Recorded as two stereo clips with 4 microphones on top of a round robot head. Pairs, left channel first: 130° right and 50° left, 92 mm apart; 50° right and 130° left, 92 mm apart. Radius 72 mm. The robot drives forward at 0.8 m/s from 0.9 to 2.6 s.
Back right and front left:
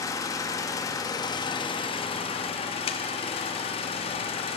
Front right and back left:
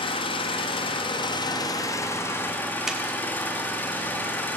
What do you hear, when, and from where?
0.0 s an engine running: 75° right, 1.6 m; by 4.6 s 125° right, 1.9 m
2.9 s a clap: 145° right, 1.6 m